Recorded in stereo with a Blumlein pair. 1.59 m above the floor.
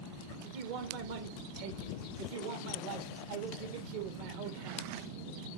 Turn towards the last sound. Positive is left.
turn(degrees=-50)